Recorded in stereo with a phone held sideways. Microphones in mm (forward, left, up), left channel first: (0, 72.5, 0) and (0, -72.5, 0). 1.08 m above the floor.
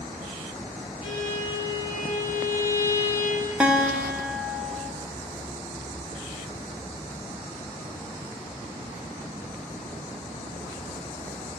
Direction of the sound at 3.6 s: 5° right (ahead or behind).